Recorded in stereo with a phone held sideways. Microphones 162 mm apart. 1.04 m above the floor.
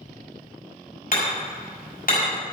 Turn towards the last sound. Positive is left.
turn(degrees=60)  # may be behind; listen again after turning